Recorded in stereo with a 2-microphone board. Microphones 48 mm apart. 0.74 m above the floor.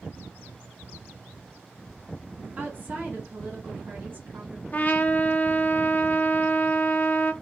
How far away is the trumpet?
About 0.5 m.